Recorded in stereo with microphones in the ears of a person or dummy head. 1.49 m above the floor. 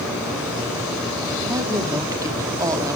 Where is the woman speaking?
20° right (ahead or behind), 3.5 m.